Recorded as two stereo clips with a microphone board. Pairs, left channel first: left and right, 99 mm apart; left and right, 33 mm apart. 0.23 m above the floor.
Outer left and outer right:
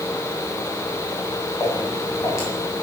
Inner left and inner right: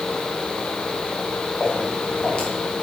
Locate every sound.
1.6 s footsteps: 30° left (ahead or behind), 5 m